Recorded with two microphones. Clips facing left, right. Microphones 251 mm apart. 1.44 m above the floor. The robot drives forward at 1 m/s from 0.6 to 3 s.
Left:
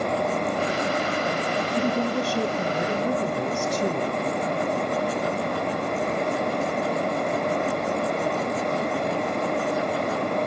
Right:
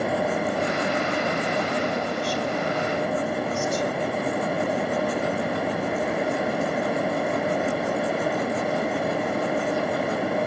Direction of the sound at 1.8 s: 70° left (ahead or behind).